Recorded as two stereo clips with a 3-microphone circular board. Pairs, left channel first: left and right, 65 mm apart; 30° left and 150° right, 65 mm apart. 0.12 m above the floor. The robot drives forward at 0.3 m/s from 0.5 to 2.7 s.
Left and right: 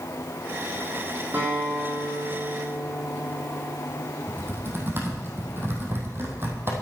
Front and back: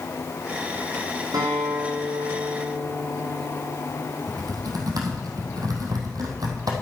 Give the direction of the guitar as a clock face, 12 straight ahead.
5 o'clock.